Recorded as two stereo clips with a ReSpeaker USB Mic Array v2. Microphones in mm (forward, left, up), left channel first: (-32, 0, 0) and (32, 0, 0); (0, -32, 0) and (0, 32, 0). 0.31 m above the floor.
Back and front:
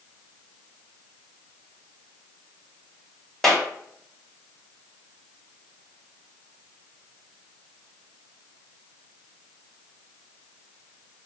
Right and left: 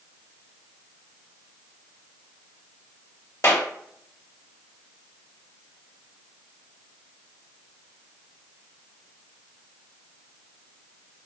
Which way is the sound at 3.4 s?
100° right.